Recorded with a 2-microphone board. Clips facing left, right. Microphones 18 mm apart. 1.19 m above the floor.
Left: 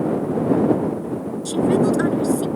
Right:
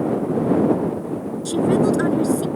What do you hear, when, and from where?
1.4 s a woman speaking: centre (ahead or behind); by 2.5 s 5° left (ahead or behind)